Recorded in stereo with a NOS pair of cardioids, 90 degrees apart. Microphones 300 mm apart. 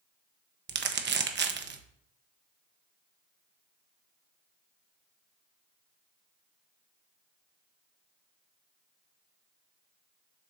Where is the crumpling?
40° right, 0.9 m.